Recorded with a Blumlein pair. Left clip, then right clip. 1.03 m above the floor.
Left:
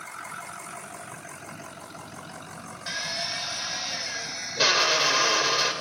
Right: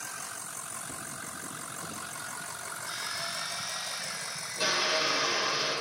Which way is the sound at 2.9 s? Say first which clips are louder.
Left 6 dB; 55° left.